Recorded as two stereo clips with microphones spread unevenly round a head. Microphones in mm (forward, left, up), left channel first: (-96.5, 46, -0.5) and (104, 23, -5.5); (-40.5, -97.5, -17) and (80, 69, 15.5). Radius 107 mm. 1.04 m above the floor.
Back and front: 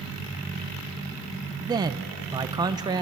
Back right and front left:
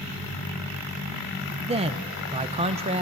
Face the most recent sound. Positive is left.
turn(degrees=15)